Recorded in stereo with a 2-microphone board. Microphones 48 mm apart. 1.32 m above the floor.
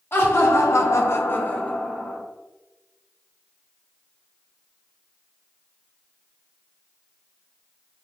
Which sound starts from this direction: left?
Laughter, at 0.1 s.